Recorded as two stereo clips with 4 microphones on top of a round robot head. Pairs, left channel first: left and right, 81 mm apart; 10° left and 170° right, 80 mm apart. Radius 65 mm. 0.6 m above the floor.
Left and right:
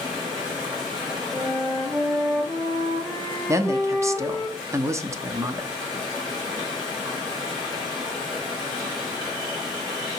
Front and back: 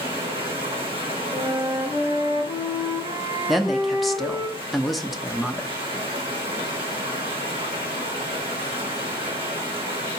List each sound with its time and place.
0.0 s running water: 145° right, 3 m
1.3 s a flute: 175° right, 2.0 m
3.5 s a woman speaking: 80° right, 0.7 m